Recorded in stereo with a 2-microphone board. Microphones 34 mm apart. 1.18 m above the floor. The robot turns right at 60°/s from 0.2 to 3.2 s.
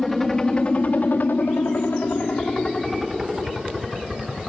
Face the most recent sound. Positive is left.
turn(degrees=-10)  # may be behind; listen again after turning